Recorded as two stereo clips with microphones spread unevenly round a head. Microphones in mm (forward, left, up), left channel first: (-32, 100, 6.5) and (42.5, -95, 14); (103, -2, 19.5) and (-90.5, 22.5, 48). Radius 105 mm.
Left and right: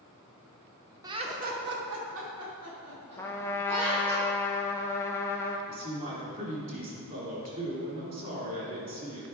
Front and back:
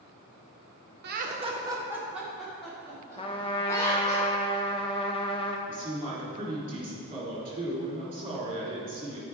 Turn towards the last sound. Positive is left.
turn(degrees=-120)